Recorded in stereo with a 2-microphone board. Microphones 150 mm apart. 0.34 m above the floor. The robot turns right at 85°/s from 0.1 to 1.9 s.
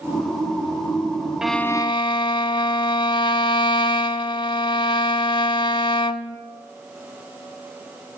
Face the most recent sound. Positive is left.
turn(degrees=35)